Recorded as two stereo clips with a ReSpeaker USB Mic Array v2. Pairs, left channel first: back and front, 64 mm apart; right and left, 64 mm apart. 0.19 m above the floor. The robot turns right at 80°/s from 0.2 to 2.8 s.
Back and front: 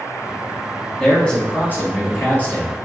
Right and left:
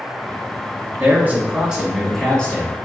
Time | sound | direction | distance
1.0 | a man speaking | 100° left | 1.5 m